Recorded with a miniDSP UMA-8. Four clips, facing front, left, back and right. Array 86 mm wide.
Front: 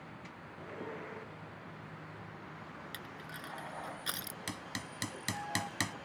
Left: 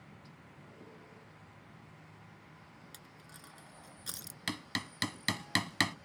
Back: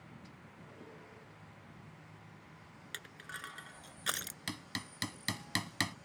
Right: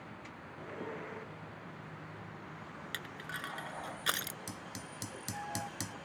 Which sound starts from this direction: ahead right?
A vehicle, at 0.0 s.